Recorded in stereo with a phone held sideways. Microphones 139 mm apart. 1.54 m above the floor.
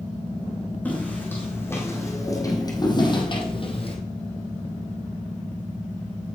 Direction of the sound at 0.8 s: 10° left (ahead or behind).